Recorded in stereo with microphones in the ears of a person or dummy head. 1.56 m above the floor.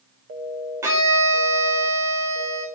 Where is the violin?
20° right (ahead or behind), 4.5 m.